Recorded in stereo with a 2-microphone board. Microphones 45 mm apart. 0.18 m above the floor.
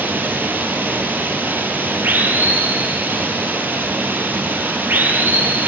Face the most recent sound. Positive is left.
turn(degrees=-50)  # may be behind; listen again after turning